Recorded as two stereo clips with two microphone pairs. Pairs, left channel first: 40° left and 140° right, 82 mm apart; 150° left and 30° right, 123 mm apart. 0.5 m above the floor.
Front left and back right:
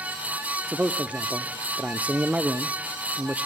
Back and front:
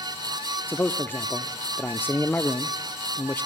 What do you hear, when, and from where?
0.7 s a man speaking: 175° left, 0.7 m